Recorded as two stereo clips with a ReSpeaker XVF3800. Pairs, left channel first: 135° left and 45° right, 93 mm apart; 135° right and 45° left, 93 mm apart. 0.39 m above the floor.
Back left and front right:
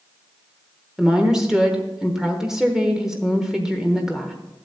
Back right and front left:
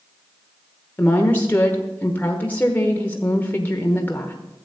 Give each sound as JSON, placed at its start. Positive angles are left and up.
{"t": 1.0, "sound": "a woman speaking", "azimuth_deg": -115, "distance_m": 1.0}